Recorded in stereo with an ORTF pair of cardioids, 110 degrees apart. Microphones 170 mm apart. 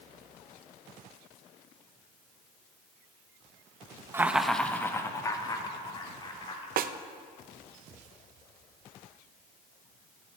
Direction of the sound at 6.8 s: 60° right.